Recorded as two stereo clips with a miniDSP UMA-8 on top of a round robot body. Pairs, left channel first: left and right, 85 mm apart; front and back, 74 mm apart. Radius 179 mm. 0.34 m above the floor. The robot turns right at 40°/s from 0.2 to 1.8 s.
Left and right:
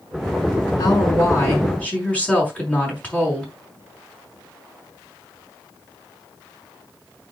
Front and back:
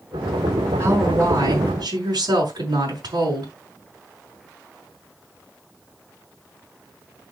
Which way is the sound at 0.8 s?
120° left.